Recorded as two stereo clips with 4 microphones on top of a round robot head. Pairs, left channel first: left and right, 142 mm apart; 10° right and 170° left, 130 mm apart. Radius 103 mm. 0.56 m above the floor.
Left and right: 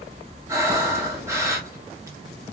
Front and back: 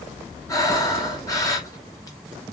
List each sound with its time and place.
0.5 s breathing: 45° right, 1.0 m